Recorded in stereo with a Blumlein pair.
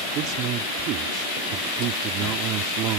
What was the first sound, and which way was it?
A man speaking, 35° right.